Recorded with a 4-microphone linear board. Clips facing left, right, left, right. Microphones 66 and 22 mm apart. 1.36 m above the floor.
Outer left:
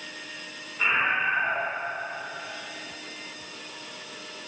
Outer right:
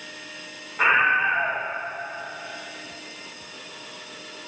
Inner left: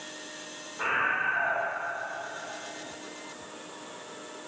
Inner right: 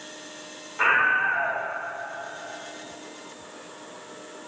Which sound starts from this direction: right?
A scream, at 0.8 s.